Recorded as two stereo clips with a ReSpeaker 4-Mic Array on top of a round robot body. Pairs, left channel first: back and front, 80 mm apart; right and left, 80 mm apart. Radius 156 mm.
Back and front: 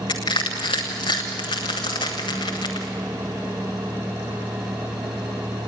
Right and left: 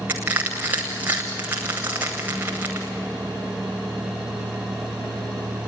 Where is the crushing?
160° left, 0.7 m.